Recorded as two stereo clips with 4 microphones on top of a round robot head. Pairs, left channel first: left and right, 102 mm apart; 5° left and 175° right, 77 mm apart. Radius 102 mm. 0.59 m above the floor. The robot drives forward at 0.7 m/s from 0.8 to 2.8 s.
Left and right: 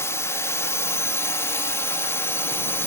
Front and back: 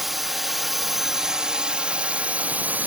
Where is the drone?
100° left; by 2.9 s 135° left.